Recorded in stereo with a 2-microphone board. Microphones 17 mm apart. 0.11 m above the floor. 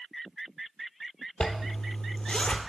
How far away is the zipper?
About 0.6 m.